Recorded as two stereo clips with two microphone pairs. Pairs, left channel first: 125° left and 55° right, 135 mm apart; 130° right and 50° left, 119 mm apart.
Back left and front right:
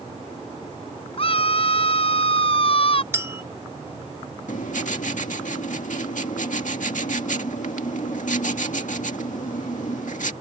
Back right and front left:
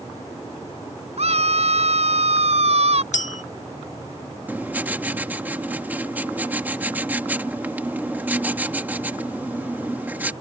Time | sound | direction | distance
1.2 | a scream | 80° left | ?
3.1 | a clink | 130° right | ?
4.5 | writing | 125° left | ?